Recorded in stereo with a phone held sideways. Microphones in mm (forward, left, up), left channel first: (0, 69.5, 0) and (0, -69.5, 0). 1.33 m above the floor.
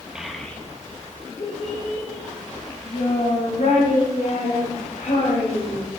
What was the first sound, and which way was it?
A child speaking, 5° right (ahead or behind).